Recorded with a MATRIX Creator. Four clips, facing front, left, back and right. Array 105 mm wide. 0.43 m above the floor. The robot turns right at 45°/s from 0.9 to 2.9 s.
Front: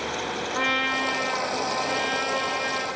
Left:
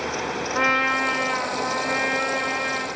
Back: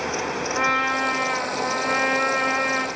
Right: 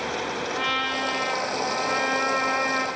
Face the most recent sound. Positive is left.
turn(degrees=-155)